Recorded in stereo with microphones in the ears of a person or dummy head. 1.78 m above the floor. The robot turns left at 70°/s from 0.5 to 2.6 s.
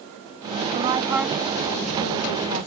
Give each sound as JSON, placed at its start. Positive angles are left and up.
{"t": 0.7, "sound": "a woman speaking", "azimuth_deg": -135}